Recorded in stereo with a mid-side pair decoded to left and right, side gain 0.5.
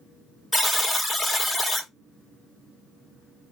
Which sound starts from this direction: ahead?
A buzzer, at 0.5 s.